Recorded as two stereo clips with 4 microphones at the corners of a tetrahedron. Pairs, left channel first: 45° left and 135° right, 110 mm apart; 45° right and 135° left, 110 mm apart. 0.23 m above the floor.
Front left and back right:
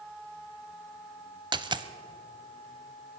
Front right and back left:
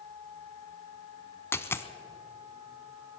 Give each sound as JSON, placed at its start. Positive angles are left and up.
{"t": 1.5, "sound": "a dropped coin", "azimuth_deg": -105, "distance_m": 0.6}